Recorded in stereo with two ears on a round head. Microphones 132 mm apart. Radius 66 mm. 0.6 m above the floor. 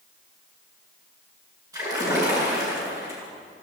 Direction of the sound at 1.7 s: 25° right (ahead or behind).